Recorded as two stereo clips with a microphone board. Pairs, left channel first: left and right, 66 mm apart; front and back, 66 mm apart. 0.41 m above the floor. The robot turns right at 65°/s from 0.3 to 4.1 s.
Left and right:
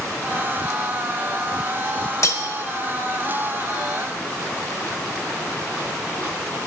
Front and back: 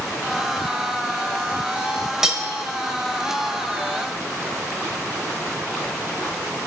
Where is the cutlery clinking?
100° left, 1.1 m; by 2.4 s 115° left, 1.1 m.